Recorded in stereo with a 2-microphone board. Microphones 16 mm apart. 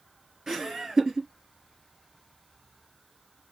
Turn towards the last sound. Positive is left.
turn(degrees=-45)  # may be behind; listen again after turning